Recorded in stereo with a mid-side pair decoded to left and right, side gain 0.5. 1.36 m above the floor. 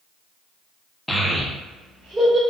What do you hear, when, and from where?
1.1 s a child speaking: 5° left, 0.8 m; by 2.4 s 45° right, 1.8 m